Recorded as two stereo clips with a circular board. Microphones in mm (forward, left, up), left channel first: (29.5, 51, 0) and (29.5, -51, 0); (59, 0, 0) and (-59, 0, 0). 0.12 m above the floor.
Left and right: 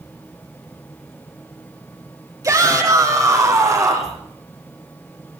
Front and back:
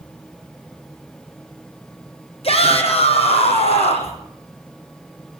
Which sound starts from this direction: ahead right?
A shout, at 2.4 s.